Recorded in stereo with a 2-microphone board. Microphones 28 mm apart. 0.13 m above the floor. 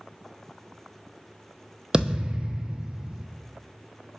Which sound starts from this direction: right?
A thud, at 1.9 s.